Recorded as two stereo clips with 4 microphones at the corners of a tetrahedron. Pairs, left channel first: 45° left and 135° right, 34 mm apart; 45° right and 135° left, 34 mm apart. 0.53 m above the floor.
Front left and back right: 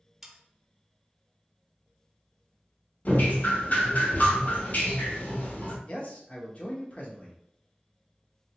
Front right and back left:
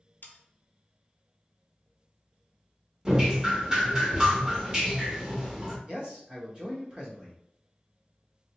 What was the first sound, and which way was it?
Sawing, 55° right.